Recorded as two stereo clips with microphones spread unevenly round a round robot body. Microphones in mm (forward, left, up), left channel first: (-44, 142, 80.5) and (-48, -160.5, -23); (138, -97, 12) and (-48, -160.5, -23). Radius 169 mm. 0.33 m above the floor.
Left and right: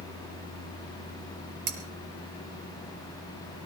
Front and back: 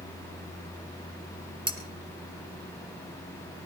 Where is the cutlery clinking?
95° right, 3.5 m.